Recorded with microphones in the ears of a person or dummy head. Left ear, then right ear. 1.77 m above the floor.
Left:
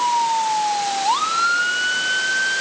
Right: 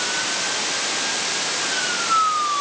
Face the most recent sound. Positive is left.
No sound to turn to.